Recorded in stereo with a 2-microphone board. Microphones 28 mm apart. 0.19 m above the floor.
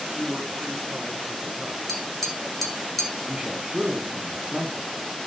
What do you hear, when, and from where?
0.2 s a man speaking: 55° right (ahead or behind), 2.5 m; by 1.8 s 30° right (ahead or behind), 2.0 m
1.9 s tapping: 5° left (ahead or behind), 0.9 m
3.3 s a man speaking: 35° right (ahead or behind), 1.3 m